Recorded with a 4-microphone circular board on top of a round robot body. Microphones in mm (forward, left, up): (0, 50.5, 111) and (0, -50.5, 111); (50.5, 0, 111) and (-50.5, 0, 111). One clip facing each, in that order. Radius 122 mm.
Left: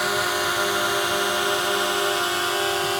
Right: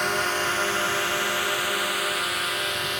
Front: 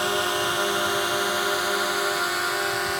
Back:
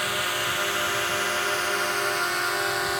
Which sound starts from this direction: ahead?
A drone, at 0.0 s.